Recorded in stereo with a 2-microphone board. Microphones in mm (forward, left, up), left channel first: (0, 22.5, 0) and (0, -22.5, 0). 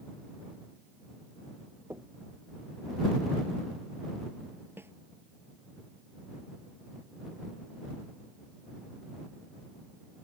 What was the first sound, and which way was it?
Knocking, 70° right (ahead or behind).